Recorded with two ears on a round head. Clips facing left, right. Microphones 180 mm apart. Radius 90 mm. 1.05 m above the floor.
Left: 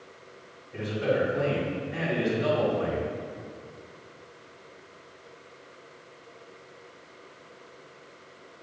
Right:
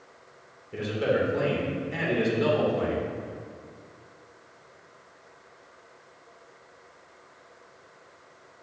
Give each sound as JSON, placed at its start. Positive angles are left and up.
{"t": 0.7, "sound": "a man speaking", "side_deg": -85, "distance_m": 3.0}